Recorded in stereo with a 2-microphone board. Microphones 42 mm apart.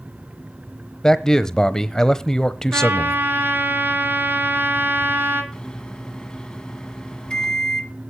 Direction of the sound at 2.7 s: 50° right (ahead or behind).